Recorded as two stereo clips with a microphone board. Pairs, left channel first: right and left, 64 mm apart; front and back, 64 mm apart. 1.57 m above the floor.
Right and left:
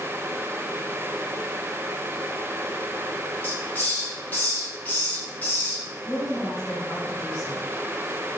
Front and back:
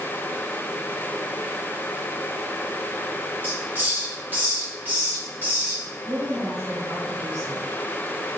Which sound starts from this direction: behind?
A woman speaking, at 6.0 s.